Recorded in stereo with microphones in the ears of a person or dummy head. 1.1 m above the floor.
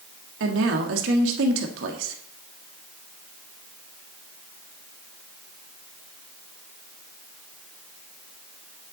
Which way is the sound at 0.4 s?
80° right.